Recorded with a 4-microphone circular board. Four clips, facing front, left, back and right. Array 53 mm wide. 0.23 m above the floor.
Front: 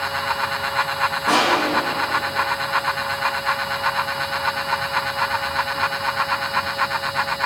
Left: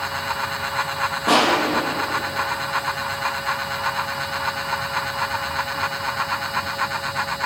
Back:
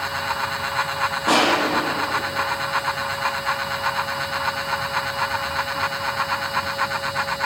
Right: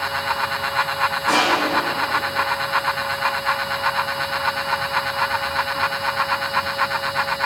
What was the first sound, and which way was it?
Crushing, 125° left.